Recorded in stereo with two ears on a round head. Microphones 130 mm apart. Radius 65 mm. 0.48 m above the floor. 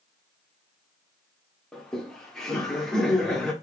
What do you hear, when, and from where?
1.7 s laughter: 5° left (ahead or behind), 0.7 m